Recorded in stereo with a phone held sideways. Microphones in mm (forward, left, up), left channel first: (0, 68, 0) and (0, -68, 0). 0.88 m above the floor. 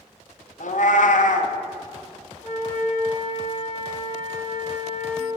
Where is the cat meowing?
70° left (ahead or behind), 0.5 m.